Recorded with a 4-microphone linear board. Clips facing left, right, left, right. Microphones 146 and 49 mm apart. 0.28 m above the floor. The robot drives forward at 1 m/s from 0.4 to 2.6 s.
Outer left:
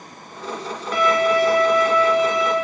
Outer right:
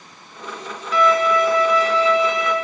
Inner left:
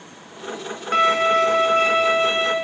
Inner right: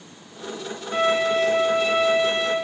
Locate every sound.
0.9 s a violin: 65° left (ahead or behind), 1.5 m; by 2.5 s 45° left (ahead or behind), 1.9 m